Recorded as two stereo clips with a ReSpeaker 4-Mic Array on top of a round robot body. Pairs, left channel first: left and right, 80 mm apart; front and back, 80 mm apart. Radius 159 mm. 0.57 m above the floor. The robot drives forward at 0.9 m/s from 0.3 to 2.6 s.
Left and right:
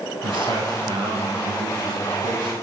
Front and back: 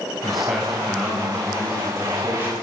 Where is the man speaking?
90° right, 5 m; by 2.5 s 115° right, 5.5 m.